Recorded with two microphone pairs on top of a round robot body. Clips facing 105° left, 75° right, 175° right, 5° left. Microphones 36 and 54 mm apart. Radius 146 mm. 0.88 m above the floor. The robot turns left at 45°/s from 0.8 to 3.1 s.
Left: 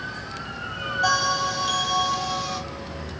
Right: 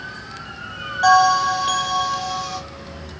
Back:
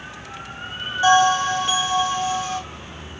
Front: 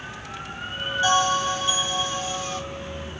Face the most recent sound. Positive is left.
turn(degrees=160)